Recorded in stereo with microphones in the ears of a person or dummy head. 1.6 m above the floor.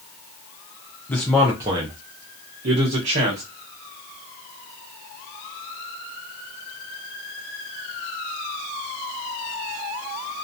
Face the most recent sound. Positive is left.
turn(degrees=-45)  # may be behind; listen again after turning